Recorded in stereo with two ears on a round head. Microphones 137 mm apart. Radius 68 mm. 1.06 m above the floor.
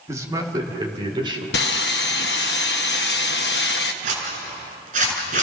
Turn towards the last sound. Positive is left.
turn(degrees=-55)  # may be behind; listen again after turning